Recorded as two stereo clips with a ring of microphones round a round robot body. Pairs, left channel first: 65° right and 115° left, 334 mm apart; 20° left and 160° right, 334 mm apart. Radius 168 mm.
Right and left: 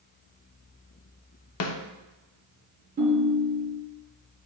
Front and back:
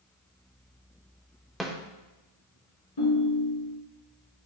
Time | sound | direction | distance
1.6 | a snare drum | 70° right | 0.8 m
3.0 | a ringtone | 45° left | 3 m